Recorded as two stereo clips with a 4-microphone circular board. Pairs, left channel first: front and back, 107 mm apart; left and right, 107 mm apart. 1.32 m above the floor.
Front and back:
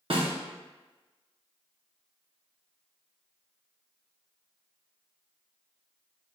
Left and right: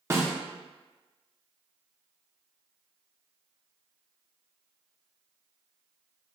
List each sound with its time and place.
0.1 s a snare drum: 150° right, 0.8 m